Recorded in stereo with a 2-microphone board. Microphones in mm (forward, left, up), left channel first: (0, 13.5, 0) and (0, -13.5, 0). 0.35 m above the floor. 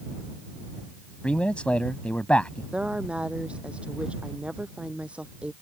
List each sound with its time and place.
1.2 s a man speaking: 50° left (ahead or behind)
2.7 s a woman speaking: 50° right (ahead or behind)